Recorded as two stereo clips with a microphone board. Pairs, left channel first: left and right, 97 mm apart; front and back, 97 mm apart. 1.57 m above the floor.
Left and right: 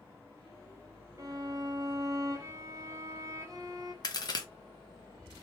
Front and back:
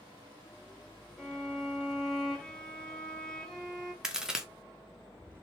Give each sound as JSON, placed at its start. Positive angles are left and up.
{"t": 1.2, "sound": "a violin", "azimuth_deg": -80, "distance_m": 0.7}
{"t": 4.0, "sound": "a crack", "azimuth_deg": 100, "distance_m": 0.6}